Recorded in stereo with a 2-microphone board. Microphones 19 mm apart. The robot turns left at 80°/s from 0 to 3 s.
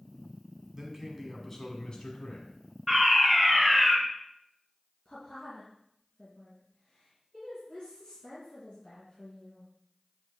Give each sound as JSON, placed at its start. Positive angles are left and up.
{"t": 0.7, "sound": "a man speaking", "azimuth_deg": -135, "distance_m": 1.6}
{"t": 2.9, "sound": "a fire alarm", "side_deg": -5, "distance_m": 1.9}
{"t": 5.0, "sound": "a woman speaking", "side_deg": 45, "distance_m": 2.5}